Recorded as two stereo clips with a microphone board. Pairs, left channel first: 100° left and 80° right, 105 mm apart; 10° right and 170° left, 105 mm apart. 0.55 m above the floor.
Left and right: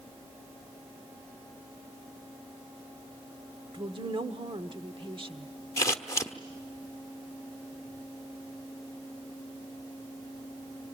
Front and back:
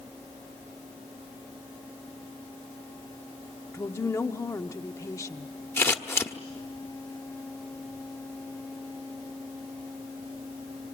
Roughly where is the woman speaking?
Right.